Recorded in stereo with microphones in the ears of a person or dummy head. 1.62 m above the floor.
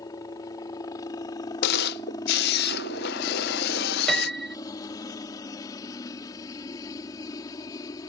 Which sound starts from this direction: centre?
A piano, at 4.1 s.